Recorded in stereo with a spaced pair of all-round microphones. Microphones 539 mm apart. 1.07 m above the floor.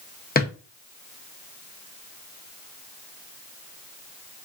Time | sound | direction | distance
0.3 | a drawer | 20° left (ahead or behind) | 0.6 m